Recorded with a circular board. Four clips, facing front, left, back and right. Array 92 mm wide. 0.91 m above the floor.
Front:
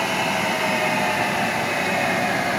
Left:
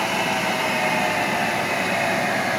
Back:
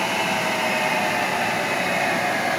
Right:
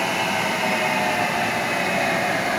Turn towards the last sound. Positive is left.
No sound to turn to.